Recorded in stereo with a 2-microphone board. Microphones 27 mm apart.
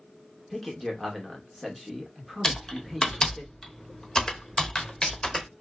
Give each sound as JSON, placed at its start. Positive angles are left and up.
{"t": 0.5, "sound": "a man speaking", "side_deg": 5, "distance_m": 1.0}
{"t": 2.4, "sound": "typing on a keyboard", "side_deg": 30, "distance_m": 0.7}